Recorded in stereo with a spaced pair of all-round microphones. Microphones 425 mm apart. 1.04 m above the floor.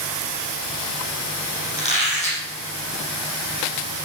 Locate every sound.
1.8 s a squeak: 15° left (ahead or behind), 6.5 m